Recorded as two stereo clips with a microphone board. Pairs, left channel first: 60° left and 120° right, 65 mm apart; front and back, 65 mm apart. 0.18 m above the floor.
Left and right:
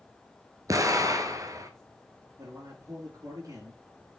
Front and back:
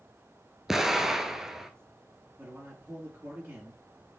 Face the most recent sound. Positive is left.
turn(degrees=-120)